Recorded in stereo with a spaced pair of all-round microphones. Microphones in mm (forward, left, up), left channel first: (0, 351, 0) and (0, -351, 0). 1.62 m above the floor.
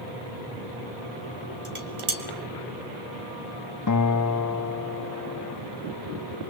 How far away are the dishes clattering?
About 2.5 m.